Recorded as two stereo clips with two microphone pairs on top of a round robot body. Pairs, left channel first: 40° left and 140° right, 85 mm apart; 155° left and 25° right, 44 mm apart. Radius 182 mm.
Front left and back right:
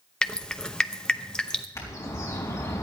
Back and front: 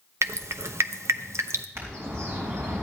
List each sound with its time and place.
0.2 s dripping: 40° right, 0.8 m
1.8 s a bird: 15° right, 4 m